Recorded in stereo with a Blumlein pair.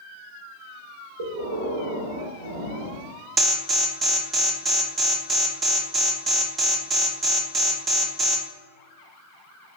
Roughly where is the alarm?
Ahead.